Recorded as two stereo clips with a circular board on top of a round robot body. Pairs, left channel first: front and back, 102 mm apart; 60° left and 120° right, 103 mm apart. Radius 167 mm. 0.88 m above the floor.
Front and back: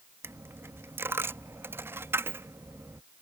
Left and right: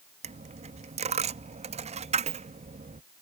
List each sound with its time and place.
0.2 s a dropped coin: 110° right